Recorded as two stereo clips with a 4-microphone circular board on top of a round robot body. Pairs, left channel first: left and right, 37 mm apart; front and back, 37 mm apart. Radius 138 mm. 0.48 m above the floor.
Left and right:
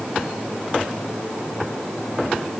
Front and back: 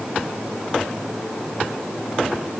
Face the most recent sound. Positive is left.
No sound to turn to.